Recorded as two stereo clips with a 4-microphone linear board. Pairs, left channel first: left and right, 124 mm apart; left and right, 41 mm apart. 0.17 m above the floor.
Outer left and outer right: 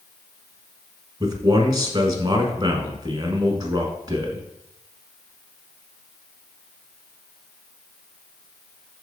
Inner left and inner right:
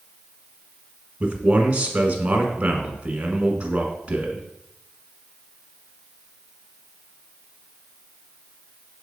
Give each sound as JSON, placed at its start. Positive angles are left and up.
{"t": 1.2, "sound": "a man speaking", "side_deg": -35, "distance_m": 1.4}